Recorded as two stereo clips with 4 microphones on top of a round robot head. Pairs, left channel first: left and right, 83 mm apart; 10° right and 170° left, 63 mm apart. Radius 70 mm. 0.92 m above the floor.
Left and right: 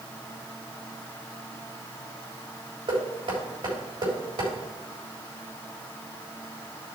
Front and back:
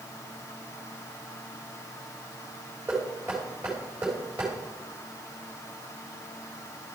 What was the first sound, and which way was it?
Knocking, 115° right.